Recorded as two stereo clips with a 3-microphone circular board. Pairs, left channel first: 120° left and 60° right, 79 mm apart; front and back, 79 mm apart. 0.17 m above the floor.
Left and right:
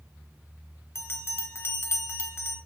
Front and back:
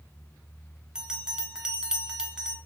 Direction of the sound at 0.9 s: 110° left.